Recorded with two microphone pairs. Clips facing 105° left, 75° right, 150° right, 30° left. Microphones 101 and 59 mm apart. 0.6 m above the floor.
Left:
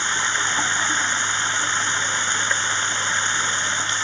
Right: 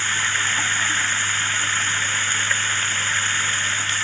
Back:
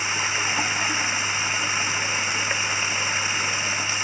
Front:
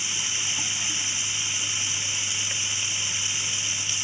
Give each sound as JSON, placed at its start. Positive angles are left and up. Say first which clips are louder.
{"t": 0.0, "sound": "running water", "louder": "left 1 dB, back 8 dB", "azimuth_deg": 175}